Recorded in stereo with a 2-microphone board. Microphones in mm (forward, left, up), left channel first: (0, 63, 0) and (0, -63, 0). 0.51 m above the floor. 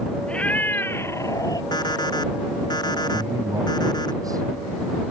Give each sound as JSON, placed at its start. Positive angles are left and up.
{"t": 0.3, "sound": "a cat meowing", "side_deg": 10}
{"t": 1.7, "sound": "an alarm clock", "side_deg": 35}
{"t": 3.1, "sound": "a man speaking", "side_deg": -30}